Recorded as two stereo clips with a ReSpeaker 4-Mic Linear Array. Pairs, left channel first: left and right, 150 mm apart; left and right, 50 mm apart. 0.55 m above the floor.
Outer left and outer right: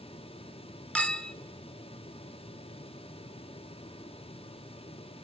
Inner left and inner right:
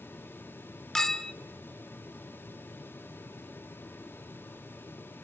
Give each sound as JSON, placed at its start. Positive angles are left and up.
{"t": 0.9, "sound": "a clink", "side_deg": 10, "distance_m": 0.8}